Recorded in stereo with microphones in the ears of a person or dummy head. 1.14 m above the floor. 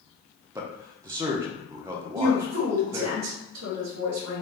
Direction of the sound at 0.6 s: 15° right (ahead or behind).